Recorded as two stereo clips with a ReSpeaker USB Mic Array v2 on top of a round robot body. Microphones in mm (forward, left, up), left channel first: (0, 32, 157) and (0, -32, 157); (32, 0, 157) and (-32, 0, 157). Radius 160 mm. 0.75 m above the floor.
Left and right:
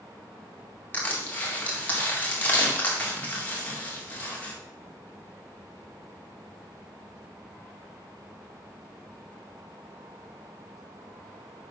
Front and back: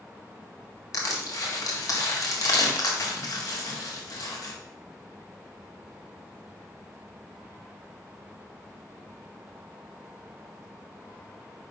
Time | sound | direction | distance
0.9 | crushing | 25° left | 2 m